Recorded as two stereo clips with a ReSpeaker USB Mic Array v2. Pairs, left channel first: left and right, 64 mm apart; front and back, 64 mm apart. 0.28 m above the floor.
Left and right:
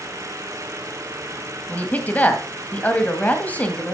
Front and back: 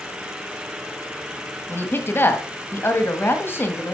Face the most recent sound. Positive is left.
turn(degrees=35)